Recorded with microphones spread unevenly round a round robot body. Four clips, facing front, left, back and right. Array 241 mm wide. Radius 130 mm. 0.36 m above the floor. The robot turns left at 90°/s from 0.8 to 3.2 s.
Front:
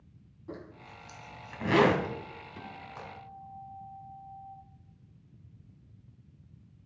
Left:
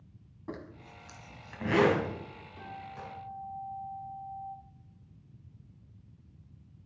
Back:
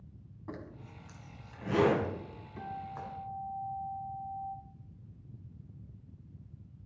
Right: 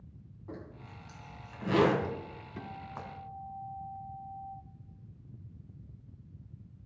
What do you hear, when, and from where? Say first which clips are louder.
0.5 s a zipper: left 3 dB, front 1 dB; 110° left, 2 m; by 3.1 s 95° right, 2 m
2.6 s a guitar: even, back 7 dB; 75° right, 1.8 m; by 4.5 s 130° right, 1.8 m